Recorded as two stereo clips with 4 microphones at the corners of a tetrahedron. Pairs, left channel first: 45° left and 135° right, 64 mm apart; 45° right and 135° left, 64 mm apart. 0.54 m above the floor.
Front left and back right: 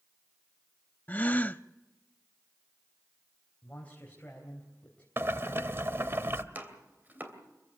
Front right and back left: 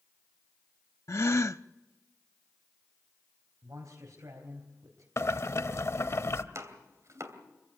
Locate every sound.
1.1 s a gasp: 15° right, 0.5 m
3.6 s a man speaking: 110° left, 3.5 m
5.2 s boiling: 85° right, 1.0 m
6.5 s chopping: 165° left, 2.5 m